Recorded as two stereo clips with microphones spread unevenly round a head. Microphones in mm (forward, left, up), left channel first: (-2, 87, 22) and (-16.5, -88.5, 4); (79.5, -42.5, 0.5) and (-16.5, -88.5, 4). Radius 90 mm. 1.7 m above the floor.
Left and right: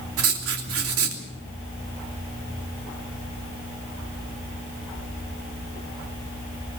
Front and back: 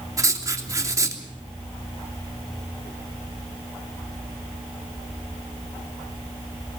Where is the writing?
95° right, 3 m.